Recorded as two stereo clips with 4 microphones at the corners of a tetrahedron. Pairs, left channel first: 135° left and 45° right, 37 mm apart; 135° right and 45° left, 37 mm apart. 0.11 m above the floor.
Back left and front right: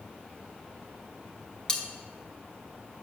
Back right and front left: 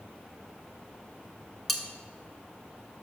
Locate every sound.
1.7 s cutlery clinking: 145° left, 0.7 m